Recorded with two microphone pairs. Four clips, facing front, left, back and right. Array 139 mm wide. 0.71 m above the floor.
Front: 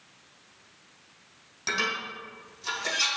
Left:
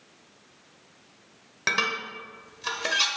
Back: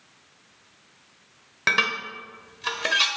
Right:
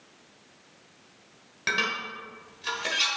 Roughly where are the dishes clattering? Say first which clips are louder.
Left 1 dB, back 5 dB; behind.